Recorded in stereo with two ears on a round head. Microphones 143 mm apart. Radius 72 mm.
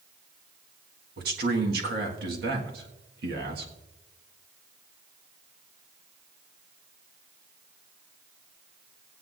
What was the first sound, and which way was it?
A man speaking, 70° right (ahead or behind).